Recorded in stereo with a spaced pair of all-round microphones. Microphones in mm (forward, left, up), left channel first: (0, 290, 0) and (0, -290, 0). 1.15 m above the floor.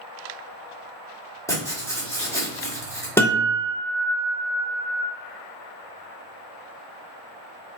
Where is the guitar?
5° left (ahead or behind), 0.6 m.